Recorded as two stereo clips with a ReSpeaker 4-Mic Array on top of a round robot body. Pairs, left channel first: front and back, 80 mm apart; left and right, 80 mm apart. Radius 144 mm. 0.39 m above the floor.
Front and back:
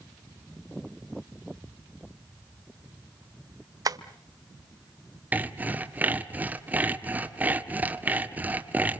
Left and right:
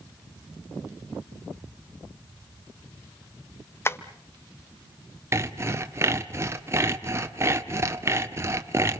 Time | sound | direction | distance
3.9 | tapping | 145° left | 1.1 m
5.3 | sawing | 120° right | 1.8 m